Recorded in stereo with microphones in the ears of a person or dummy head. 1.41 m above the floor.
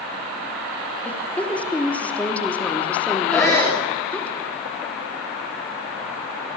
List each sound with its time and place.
1.1 s a woman speaking: 20° left (ahead or behind), 3 m
3.3 s a shout: 10° left (ahead or behind), 4 m